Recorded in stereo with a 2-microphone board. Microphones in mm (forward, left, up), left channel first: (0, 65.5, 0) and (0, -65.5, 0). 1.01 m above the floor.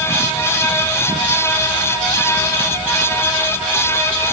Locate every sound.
Only background noise.